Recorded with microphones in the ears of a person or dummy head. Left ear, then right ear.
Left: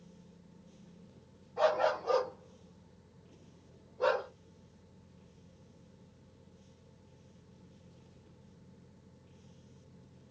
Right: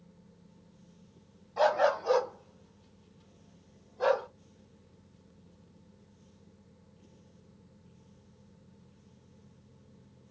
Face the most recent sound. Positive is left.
turn(degrees=-30)  # may be behind; listen again after turning